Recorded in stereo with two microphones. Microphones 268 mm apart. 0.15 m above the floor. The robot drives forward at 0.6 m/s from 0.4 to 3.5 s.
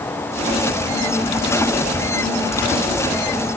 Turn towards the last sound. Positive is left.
No sound to turn to.